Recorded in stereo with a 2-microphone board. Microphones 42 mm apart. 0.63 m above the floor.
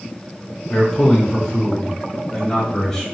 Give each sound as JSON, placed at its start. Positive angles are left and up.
{"t": 0.7, "sound": "a man speaking", "side_deg": 15, "distance_m": 1.2}